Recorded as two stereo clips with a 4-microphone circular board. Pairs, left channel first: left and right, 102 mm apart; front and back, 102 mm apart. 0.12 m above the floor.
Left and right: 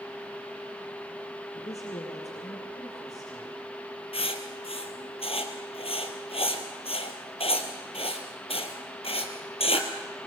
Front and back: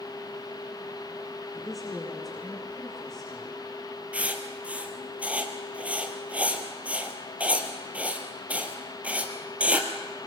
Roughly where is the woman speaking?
Left.